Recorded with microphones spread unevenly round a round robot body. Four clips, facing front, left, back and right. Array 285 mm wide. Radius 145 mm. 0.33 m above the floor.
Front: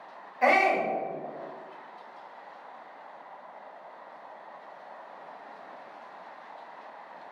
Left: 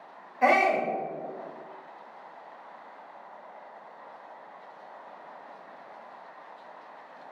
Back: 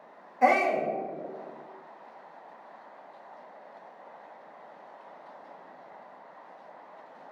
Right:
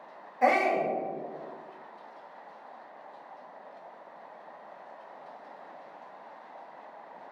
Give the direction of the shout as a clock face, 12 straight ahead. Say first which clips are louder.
Left 2 dB, even; 6 o'clock.